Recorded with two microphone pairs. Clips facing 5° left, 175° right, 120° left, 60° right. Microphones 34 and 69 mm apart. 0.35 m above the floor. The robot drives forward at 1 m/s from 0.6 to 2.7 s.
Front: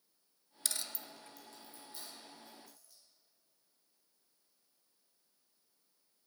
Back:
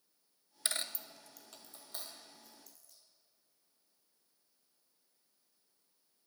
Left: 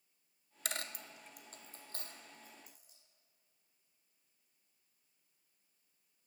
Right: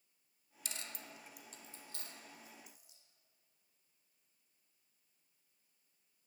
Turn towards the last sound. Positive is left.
turn(degrees=170)